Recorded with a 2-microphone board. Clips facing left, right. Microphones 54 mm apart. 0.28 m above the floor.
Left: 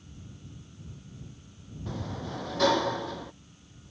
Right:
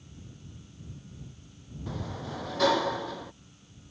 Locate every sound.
1.9 s a sliding door: centre (ahead or behind)